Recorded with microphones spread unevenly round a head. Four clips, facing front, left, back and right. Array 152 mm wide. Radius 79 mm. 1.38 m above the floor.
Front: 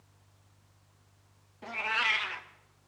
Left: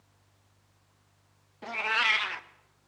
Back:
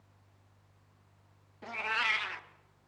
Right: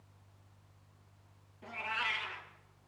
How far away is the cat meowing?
About 0.6 m.